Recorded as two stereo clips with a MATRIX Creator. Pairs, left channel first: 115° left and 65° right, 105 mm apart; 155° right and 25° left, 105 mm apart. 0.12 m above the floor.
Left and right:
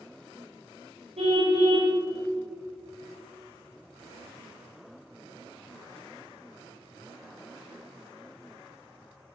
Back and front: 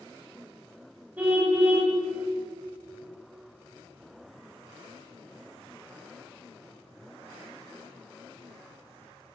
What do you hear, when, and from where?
1.2 s a car horn: 55° right, 7.5 m